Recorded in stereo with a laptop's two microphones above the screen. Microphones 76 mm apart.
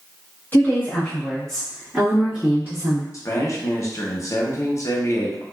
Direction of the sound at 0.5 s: 25° left (ahead or behind).